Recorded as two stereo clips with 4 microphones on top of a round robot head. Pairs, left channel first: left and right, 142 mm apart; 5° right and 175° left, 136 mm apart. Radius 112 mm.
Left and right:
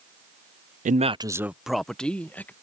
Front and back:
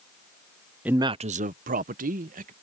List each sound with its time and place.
0.8 s a man speaking: 105° right; by 2.5 s 165° left